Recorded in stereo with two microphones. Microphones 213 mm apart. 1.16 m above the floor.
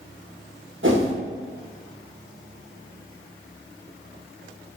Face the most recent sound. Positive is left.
turn(degrees=-65)  # may be behind; listen again after turning